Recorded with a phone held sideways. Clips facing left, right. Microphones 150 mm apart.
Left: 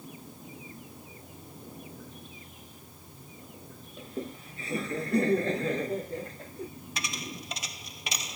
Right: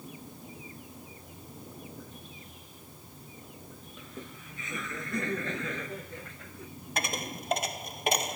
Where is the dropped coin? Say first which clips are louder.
Right 5 dB; 55° right (ahead or behind).